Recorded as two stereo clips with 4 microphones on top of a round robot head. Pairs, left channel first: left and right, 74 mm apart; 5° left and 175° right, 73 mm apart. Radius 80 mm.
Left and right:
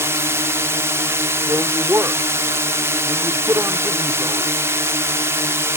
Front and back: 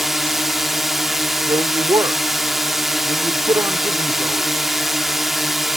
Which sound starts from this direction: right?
A drone, at 0.0 s.